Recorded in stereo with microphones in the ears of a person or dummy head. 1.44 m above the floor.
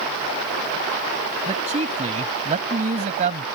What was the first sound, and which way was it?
A man speaking, 20° right (ahead or behind).